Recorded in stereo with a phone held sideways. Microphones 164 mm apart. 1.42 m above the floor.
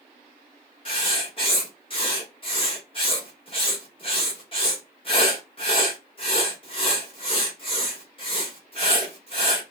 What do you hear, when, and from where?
0.8 s writing: 35° left (ahead or behind), 1.1 m